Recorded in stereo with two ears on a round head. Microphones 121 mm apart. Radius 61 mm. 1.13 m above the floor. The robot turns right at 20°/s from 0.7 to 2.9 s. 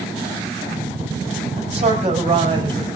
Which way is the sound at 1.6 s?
55° right (ahead or behind).